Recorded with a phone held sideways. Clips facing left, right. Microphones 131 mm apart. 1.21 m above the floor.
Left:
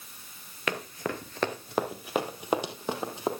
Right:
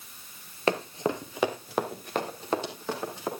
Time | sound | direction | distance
0.7 | running footsteps | 35° right (ahead or behind) | 1.4 m